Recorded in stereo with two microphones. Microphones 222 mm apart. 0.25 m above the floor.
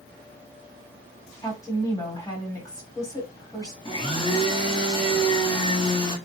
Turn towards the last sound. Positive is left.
turn(degrees=20)  # may be behind; listen again after turning